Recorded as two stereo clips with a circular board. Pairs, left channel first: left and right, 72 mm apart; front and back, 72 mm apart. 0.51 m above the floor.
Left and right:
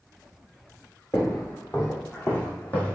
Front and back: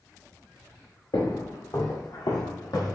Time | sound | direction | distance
1.1 | footsteps | 25° left | 2.5 m